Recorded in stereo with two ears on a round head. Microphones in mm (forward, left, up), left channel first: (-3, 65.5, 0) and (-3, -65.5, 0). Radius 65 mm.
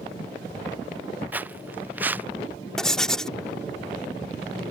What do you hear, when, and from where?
1.3 s footsteps: 15° right (ahead or behind)
2.8 s writing: 5° left (ahead or behind)